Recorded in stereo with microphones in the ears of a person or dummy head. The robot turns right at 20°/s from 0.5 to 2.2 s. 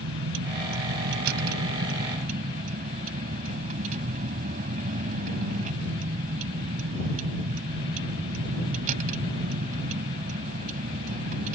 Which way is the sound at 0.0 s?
75° right.